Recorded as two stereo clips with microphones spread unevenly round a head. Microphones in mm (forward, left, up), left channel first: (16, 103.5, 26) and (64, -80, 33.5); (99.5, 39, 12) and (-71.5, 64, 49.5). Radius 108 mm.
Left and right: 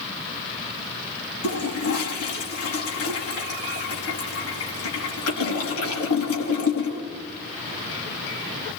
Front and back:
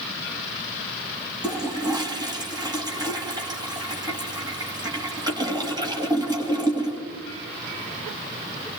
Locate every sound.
1.4 s a toilet flushing: 105° left, 4.5 m